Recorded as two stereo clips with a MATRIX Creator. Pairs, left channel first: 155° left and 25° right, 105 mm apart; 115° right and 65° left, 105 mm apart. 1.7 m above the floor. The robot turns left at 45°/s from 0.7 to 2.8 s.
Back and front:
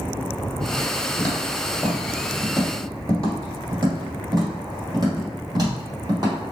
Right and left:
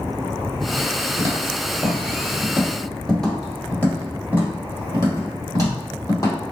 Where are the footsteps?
100° left, 1.9 m; by 6.4 s 70° right, 3 m.